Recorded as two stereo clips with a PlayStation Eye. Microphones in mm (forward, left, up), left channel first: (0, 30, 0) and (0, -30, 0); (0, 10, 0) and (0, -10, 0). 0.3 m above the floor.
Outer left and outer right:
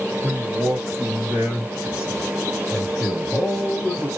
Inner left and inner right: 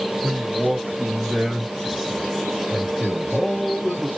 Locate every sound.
0.2 s a man speaking: 30° right (ahead or behind), 1.9 m; by 4.1 s 15° left (ahead or behind), 1.7 m